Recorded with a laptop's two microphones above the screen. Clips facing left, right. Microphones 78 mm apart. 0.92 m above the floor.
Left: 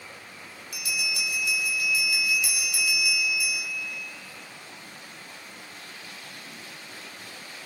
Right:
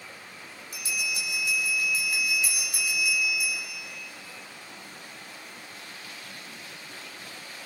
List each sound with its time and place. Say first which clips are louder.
0.7 s a bell: left 1 dB; 35° right (ahead or behind), 4 m